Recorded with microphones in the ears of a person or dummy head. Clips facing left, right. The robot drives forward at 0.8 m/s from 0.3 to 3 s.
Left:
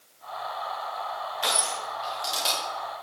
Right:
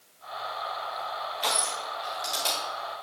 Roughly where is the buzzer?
No buzzer in this recording.